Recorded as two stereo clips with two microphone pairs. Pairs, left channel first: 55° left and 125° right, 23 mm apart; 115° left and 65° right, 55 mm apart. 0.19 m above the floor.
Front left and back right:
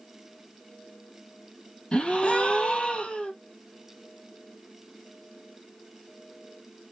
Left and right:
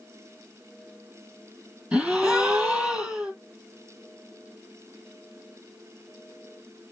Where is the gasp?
10° left, 1.0 m.